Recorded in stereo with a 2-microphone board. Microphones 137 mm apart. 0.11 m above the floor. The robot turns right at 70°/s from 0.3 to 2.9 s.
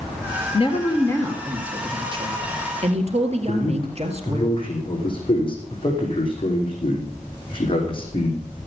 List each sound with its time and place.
0.5 s a woman speaking: 115° left, 2.5 m; by 4.4 s 80° right, 2.5 m
3.4 s a man speaking: 40° left (ahead or behind), 5 m